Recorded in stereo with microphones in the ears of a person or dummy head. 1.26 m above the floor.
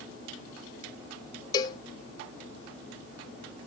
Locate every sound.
1.5 s a cowbell: 20° left (ahead or behind), 0.5 m